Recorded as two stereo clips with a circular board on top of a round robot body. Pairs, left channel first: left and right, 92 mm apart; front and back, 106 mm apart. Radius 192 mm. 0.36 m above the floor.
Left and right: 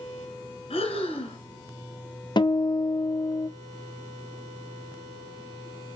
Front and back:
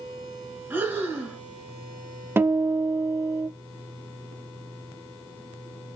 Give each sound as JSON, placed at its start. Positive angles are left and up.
{"t": 0.7, "sound": "breathing", "azimuth_deg": 110, "distance_m": 0.7}
{"t": 2.4, "sound": "a guitar", "azimuth_deg": 115, "distance_m": 0.6}